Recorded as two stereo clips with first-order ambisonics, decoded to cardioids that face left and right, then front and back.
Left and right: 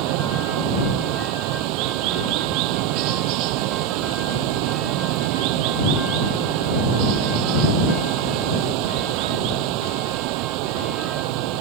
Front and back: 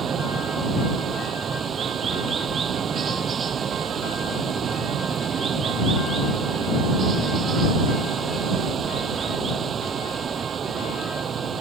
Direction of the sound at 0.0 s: 115° right.